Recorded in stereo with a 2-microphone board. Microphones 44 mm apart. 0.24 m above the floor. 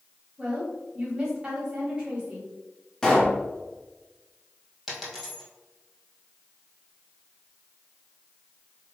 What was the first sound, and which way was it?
A woman speaking, 20° right (ahead or behind).